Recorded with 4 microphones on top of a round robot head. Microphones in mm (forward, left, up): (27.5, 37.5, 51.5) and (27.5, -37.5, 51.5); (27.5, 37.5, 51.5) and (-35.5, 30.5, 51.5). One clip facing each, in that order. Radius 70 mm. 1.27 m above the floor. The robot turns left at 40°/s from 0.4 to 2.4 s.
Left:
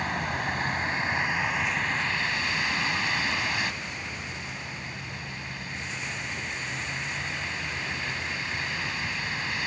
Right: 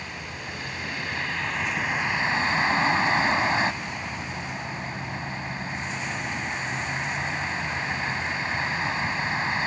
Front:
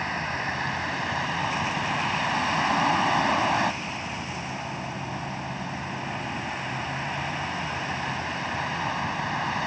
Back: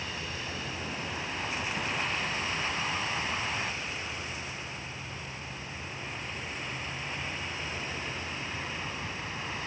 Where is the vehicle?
50° left; by 9.7 s 30° right.